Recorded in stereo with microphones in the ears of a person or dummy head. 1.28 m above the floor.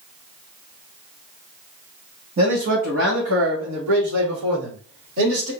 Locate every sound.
2.4 s a man speaking: 35° right (ahead or behind), 0.8 m; by 5.5 s 75° right (ahead or behind), 1.7 m